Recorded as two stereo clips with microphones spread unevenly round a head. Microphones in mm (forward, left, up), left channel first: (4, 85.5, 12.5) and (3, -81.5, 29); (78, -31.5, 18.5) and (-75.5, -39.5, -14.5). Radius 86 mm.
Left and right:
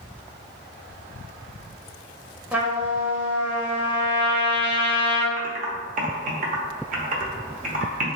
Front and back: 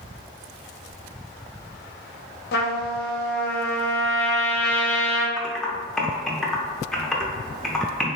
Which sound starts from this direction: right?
Typing on a keyboard, at 5.4 s.